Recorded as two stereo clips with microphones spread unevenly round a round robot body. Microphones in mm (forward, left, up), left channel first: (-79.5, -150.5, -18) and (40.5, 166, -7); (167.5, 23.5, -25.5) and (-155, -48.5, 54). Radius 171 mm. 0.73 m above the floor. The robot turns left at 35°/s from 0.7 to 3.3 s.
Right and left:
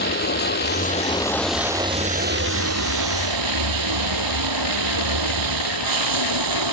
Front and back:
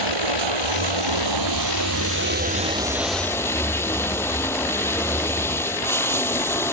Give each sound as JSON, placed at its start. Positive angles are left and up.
{"t": 0.0, "sound": "running water", "azimuth_deg": -175}